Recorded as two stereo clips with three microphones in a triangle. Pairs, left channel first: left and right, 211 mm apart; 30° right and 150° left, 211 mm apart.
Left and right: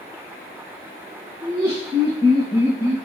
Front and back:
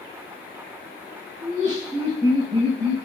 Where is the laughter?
155° left, 1.8 m; by 3.0 s 140° left, 2.5 m.